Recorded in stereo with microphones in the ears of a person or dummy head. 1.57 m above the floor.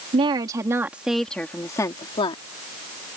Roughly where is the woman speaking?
Right.